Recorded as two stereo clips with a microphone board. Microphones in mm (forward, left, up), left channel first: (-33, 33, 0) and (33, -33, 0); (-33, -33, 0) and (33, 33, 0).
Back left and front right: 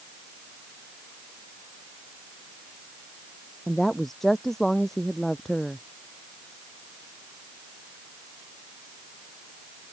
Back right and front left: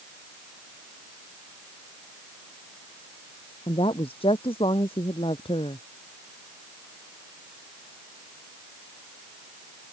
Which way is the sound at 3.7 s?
140° right.